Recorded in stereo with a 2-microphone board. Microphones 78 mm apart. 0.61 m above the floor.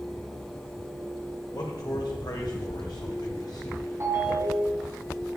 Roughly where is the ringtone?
Right.